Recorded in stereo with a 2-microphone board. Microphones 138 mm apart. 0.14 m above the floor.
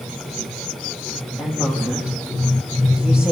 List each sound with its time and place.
1.4 s a woman speaking: 5° right (ahead or behind), 6.5 m